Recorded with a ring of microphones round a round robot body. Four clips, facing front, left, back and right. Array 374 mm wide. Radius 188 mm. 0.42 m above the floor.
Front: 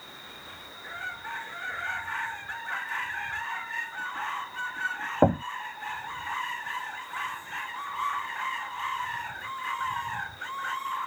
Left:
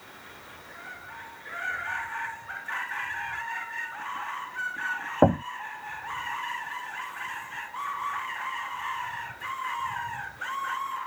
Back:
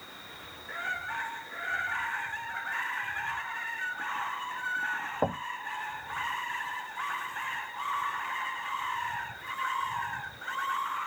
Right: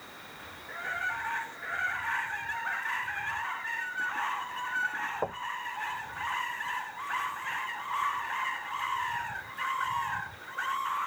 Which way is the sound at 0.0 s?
35° left.